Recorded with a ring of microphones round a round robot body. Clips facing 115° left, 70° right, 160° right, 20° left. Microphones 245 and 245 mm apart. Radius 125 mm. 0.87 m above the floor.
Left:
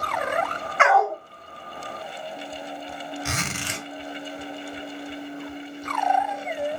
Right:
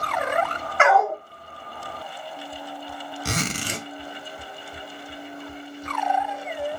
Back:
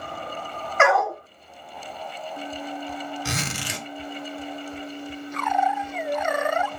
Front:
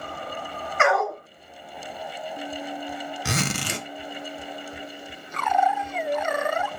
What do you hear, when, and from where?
0.8 s a dog barking: 115° right, 1.8 m
3.2 s a zipper: 15° right, 0.6 m